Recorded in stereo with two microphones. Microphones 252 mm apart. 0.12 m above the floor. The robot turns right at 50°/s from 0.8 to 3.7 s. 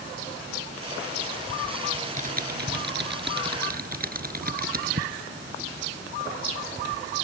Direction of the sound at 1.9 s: 25° right (ahead or behind).